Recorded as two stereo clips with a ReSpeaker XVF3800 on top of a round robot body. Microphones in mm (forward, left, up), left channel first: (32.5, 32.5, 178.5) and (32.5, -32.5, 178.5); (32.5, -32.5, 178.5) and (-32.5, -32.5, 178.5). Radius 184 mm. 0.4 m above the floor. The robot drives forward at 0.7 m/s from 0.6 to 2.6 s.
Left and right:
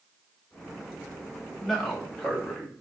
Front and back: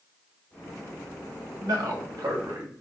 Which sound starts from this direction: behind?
A man speaking, at 1.6 s.